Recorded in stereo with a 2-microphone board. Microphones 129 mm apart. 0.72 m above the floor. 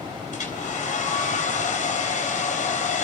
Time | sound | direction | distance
0.3 | a hair dryer | 80° left | 3.5 m